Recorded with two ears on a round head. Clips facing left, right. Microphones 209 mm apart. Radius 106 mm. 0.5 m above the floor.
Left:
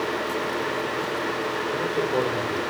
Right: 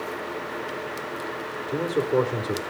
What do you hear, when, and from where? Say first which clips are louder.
1.7 s a man speaking: right 4 dB; 40° right (ahead or behind), 1.3 m